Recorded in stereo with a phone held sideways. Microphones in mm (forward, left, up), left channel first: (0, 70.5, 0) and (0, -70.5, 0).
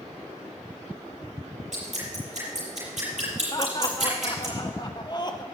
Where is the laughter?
35° left (ahead or behind), 1.1 m.